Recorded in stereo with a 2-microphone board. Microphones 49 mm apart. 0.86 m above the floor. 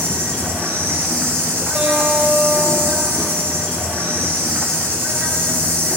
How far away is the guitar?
About 4.5 m.